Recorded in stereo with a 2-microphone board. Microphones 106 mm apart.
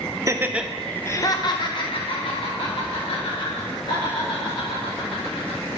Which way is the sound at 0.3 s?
30° right (ahead or behind).